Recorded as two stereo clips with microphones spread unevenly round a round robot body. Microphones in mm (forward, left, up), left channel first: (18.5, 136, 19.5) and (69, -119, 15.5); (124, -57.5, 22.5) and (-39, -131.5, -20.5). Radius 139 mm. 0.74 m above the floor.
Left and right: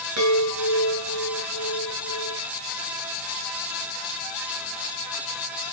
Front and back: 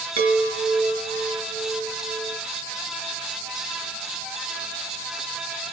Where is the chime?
120° right, 9.5 m.